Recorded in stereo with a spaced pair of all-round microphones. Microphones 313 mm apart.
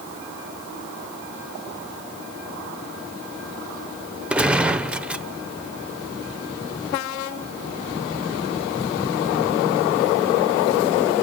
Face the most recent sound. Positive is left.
turn(degrees=-5)  # may be behind; listen again after turning